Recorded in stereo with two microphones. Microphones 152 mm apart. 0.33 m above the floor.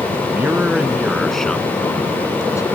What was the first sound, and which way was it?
A man speaking, 15° right (ahead or behind).